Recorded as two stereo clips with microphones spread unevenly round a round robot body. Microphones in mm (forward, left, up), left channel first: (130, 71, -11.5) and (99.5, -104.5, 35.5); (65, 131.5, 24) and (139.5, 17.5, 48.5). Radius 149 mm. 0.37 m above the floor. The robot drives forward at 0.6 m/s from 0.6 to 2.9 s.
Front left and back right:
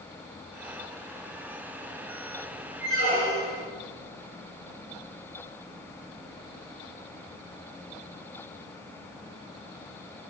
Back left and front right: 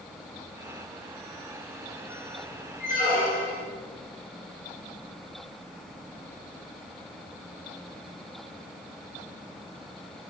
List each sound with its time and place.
2.8 s a squeak: 145° left, 1.4 m; by 3.6 s 150° left, 1.4 m